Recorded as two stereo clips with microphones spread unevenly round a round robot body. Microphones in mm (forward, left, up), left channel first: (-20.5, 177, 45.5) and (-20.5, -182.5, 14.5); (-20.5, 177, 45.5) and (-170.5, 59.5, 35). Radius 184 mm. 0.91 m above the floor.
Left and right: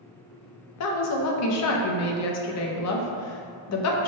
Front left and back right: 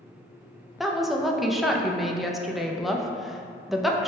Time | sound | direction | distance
0.8 | a woman speaking | 130° left | 0.6 m